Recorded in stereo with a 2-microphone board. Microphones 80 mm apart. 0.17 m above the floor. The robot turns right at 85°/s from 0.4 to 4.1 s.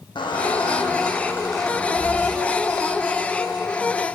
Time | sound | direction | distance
0.1 | a squeak | 75° left | 4 m